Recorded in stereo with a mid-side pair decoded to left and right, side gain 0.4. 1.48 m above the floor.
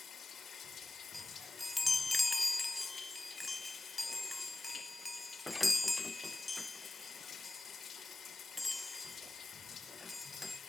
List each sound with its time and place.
0.0 s running water: 50° left, 4.5 m
1.1 s a chime: 20° left, 0.5 m